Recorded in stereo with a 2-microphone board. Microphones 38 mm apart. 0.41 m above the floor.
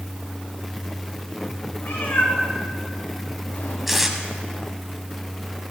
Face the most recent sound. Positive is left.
turn(degrees=-5)  # may be behind; listen again after turning